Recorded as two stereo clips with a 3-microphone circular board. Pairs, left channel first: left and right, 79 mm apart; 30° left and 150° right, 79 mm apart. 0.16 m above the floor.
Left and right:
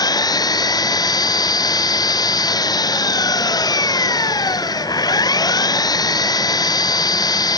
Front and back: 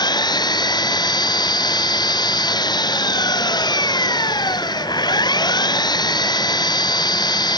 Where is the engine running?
55° left.